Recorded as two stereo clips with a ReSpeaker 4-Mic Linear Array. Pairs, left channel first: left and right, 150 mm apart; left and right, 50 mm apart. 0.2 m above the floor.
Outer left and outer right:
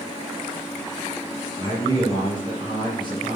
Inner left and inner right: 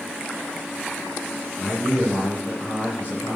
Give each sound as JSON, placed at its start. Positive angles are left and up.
{"t": 1.6, "sound": "a man speaking", "side_deg": 35, "distance_m": 4.5}